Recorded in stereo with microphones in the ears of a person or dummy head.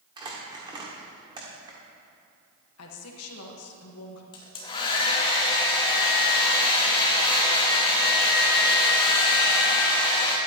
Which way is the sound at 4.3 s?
30° left (ahead or behind).